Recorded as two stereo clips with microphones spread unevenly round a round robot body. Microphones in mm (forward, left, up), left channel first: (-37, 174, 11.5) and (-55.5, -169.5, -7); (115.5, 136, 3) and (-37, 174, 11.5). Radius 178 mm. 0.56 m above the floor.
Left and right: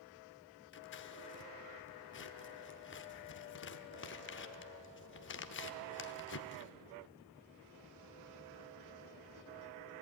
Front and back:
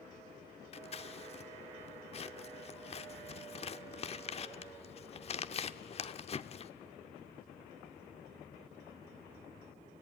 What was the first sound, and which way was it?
Scissors, 30° left.